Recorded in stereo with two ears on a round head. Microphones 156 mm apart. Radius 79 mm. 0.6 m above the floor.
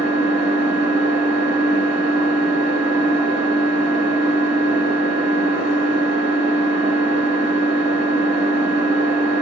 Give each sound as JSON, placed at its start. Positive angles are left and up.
{"t": 0.0, "sound": "an engine running", "side_deg": -75, "distance_m": 2.5}